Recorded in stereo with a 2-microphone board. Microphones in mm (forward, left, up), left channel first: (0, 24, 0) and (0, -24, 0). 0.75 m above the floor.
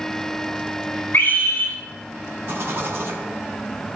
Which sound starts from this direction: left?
A scream, at 1.1 s.